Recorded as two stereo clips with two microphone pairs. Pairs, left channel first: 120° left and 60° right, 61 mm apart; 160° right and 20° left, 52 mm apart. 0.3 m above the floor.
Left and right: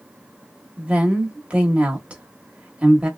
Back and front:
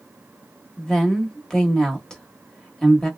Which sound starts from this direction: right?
A woman speaking, at 0.8 s.